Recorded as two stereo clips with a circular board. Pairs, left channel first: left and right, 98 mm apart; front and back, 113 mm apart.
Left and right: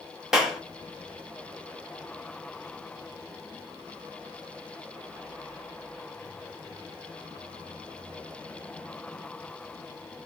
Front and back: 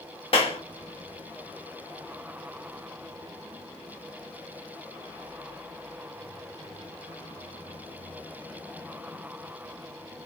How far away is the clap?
About 1.1 m.